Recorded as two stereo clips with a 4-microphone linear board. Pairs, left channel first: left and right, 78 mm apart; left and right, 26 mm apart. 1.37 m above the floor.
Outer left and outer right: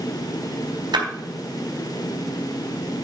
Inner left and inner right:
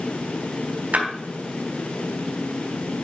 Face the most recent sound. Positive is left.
turn(degrees=-75)  # may be behind; listen again after turning